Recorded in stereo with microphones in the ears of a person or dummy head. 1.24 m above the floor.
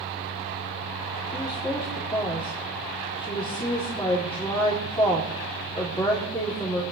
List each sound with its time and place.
1.3 s a woman speaking: 20° left (ahead or behind), 3.5 m